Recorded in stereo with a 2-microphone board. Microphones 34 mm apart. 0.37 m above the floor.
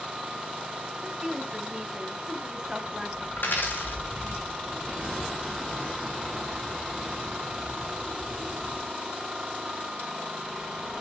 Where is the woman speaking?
20° right (ahead or behind), 3 m.